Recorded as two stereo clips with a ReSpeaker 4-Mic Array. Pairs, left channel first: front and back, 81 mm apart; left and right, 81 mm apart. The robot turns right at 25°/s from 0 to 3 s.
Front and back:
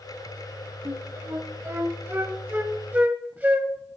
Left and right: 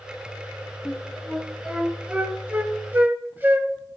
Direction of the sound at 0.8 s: 175° left.